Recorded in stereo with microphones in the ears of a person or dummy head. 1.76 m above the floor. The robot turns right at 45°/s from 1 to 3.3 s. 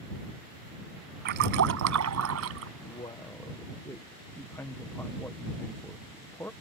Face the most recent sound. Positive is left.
turn(degrees=10)  # may be behind; listen again after turning